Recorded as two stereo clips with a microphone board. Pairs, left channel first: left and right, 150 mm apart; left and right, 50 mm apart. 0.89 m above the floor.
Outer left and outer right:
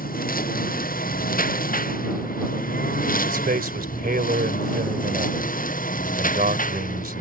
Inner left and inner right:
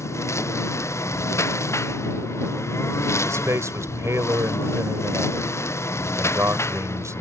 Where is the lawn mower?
75° left (ahead or behind); by 7.2 s 65° left (ahead or behind).